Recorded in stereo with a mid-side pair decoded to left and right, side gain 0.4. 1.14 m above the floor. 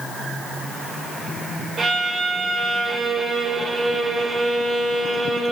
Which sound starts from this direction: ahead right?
A violin, at 1.8 s.